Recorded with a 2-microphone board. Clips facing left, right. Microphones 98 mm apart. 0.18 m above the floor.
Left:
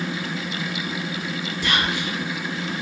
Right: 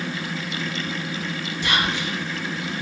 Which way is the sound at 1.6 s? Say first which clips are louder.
Even; 25° right (ahead or behind).